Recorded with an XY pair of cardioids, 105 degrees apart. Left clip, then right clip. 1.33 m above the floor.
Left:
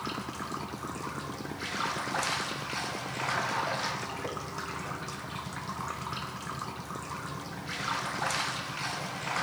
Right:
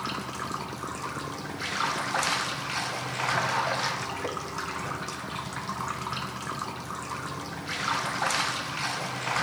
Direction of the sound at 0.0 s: 30° right.